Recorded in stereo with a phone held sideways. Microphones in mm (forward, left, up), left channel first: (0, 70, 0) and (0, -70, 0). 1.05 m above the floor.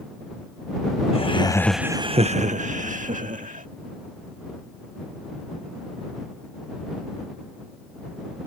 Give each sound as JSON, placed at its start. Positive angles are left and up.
{"t": 1.1, "sound": "laughter", "side_deg": 40}